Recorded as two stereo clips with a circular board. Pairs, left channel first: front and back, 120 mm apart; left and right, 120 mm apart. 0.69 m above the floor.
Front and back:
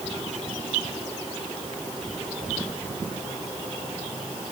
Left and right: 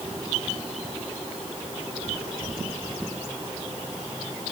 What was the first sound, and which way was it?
Only background noise.